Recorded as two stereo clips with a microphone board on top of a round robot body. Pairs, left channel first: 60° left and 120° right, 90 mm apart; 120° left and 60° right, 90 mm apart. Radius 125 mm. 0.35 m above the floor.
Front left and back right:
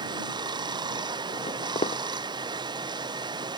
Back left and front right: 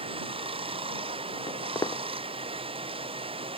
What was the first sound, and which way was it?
Running water, 80° right.